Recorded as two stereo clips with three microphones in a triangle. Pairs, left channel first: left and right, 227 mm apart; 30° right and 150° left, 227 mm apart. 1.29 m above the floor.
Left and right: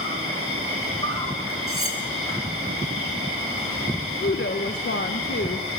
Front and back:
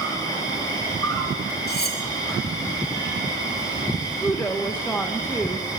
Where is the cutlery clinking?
75° right, 1.7 m.